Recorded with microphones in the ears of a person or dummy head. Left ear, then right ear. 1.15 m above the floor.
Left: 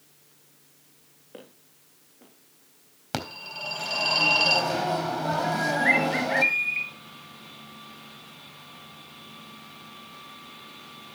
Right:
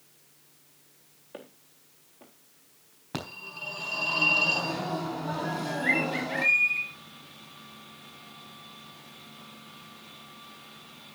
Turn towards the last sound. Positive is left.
turn(degrees=40)  # may be behind; listen again after turning